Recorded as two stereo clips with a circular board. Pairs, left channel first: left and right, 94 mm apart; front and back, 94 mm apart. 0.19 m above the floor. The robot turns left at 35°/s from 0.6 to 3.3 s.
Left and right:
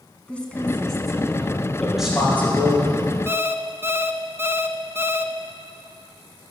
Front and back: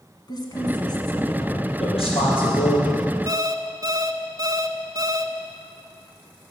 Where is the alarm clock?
145° right, 0.7 m.